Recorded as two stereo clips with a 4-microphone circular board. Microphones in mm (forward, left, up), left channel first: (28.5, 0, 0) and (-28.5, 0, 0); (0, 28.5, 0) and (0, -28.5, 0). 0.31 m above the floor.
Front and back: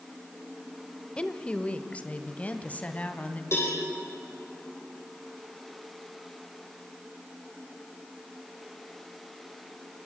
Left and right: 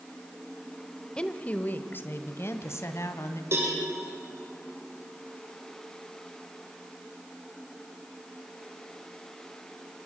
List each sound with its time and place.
1.2 s a woman speaking: 40° left, 1.2 m; by 3.4 s 65° left, 2.5 m
3.5 s a cowbell: 45° right, 9.5 m